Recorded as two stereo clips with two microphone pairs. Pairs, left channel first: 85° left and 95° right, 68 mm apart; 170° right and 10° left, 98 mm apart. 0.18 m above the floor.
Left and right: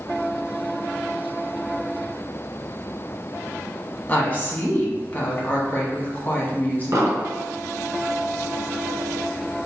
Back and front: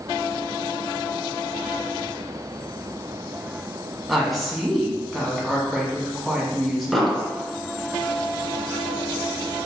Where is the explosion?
80° right, 1.3 m.